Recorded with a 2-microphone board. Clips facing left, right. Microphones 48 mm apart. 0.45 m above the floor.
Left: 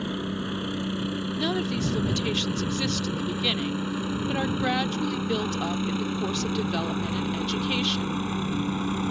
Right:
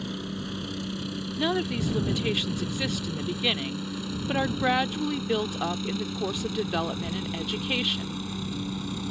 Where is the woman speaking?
15° right (ahead or behind).